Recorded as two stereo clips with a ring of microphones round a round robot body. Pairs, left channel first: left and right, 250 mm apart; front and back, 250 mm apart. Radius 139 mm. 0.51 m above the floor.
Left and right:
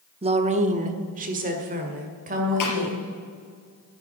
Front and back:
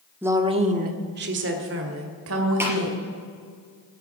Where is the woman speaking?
110° right, 0.9 m; by 3.0 s 150° right, 2.5 m.